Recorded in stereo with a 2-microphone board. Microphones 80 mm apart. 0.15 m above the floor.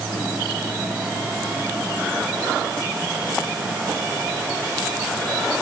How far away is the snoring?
I don't hear snoring.